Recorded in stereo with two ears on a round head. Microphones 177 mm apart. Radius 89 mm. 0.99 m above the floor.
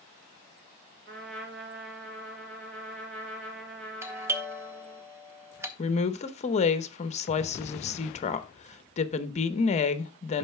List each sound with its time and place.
1.1 s a trumpet: 65° right (ahead or behind), 3.5 m
4.0 s a doorbell: 15° right (ahead or behind), 1.0 m
5.8 s a woman speaking: 35° left (ahead or behind), 0.9 m